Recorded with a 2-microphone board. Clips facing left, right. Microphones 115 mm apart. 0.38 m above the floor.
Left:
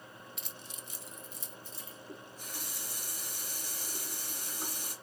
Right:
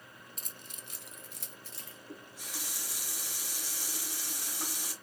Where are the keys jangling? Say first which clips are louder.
Left 2 dB; 40° right (ahead or behind), 0.7 m; by 2.0 s 70° right (ahead or behind), 1.8 m.